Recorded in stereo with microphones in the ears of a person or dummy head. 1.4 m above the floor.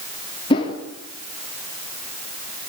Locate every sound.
0.5 s a whoosh: 25° left (ahead or behind), 3 m